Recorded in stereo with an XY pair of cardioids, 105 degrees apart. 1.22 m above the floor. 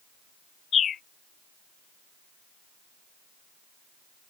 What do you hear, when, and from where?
0.7 s a bird: 55° left